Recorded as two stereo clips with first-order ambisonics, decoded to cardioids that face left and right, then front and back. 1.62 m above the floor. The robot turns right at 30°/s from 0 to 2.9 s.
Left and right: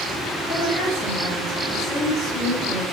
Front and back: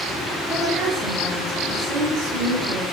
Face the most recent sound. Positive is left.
turn(degrees=-175)